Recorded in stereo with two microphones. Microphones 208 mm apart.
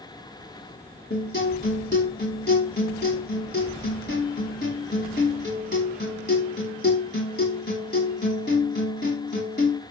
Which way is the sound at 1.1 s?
55° left (ahead or behind).